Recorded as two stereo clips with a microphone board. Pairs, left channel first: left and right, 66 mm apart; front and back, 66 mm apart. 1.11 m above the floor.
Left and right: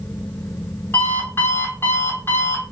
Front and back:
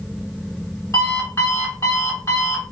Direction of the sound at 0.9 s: 40° left.